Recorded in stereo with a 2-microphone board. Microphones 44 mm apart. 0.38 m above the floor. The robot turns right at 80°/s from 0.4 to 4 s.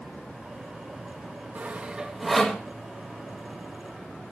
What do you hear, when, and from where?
1.6 s sawing: 40° right (ahead or behind), 1.9 m; by 2.6 s 20° left (ahead or behind), 1.9 m